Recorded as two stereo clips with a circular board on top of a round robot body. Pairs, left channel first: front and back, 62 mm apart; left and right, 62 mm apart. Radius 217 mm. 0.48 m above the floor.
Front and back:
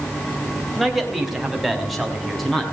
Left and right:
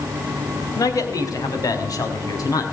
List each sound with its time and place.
0.8 s a man speaking: 90° left, 3.5 m